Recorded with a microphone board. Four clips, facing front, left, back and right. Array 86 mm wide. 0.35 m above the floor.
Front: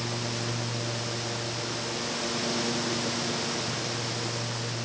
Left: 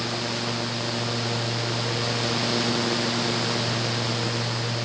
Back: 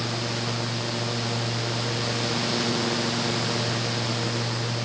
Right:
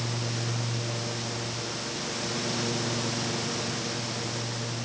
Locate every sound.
Only background noise.